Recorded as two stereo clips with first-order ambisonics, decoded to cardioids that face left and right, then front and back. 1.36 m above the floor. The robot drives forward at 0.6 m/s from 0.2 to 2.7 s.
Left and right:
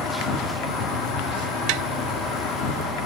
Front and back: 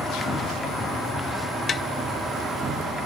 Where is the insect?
70° left, 2 m; by 3.1 s 110° left, 2 m.